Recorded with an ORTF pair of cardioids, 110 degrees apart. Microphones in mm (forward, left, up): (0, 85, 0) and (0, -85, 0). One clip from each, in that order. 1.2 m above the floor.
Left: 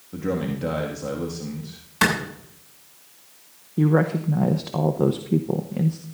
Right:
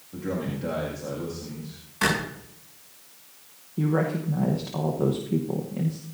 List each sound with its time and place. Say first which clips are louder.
0.1 s a man speaking: left 4 dB; 40° left, 2 m
2.0 s a clap: left 4 dB; 50° left, 7.5 m
3.8 s a woman speaking: left 5 dB; 30° left, 1.0 m